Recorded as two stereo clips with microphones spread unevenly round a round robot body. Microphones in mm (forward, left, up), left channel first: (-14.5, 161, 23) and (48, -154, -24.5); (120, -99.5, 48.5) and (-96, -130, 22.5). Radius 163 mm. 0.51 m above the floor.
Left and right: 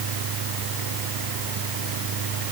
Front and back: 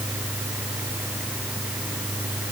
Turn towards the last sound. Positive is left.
No sound to turn to.